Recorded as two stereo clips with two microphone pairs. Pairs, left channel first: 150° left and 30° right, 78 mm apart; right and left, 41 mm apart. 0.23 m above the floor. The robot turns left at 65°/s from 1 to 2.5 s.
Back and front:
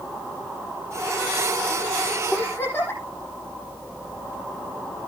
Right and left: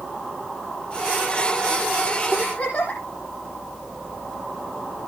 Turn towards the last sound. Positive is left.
turn(degrees=-145)